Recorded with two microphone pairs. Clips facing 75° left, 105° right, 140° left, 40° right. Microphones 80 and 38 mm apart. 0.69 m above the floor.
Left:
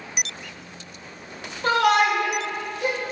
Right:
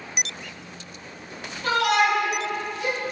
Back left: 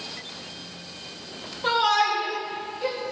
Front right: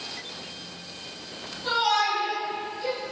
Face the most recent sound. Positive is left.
turn(degrees=100)